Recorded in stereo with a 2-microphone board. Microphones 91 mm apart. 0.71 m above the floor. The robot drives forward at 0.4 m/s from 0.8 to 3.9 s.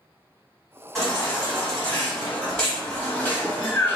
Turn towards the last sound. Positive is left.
turn(degrees=20)  # may be behind; listen again after turning